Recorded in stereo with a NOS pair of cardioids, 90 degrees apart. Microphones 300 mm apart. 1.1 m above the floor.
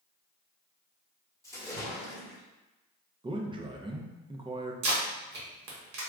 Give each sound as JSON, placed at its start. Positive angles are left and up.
{"t": 1.4, "sound": "a splash", "azimuth_deg": 10, "distance_m": 1.2}
{"t": 3.2, "sound": "a man speaking", "azimuth_deg": -15, "distance_m": 0.6}
{"t": 4.8, "sound": "tape being pulled", "azimuth_deg": -65, "distance_m": 1.2}